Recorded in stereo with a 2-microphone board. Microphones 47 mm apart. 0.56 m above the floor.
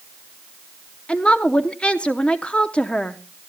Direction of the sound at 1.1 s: 25° left (ahead or behind).